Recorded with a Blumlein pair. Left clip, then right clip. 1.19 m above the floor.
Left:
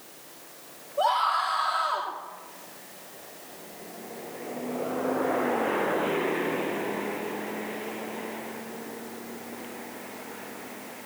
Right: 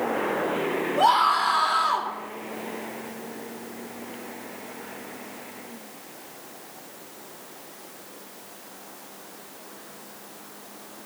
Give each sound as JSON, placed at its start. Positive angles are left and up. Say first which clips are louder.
{"t": 1.0, "sound": "a scream", "louder": "right 4 dB", "azimuth_deg": -15, "distance_m": 3.5}